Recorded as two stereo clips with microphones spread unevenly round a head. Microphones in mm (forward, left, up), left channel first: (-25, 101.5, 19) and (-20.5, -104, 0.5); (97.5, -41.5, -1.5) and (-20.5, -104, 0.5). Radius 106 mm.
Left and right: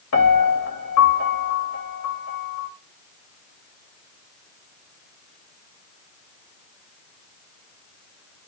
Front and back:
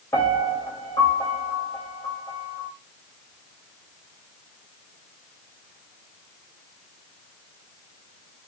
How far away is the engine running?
I don't hear an engine running.